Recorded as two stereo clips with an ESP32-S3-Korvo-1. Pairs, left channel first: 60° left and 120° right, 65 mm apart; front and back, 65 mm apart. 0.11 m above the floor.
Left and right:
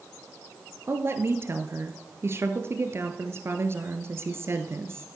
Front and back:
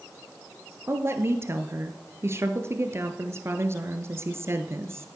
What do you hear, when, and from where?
0.9 s a woman speaking: 150° right, 1.6 m